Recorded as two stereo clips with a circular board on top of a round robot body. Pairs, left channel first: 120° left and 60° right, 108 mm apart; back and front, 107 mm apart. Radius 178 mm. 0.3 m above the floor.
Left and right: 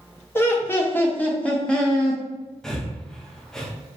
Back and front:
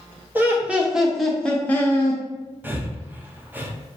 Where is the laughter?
65° left, 1.1 m; by 2.2 s 150° right, 1.0 m.